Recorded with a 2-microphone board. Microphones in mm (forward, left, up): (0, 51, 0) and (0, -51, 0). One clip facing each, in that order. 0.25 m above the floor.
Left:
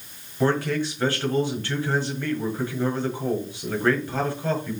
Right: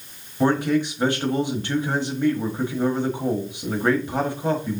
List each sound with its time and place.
0.4 s a man speaking: 20° right (ahead or behind), 1.1 m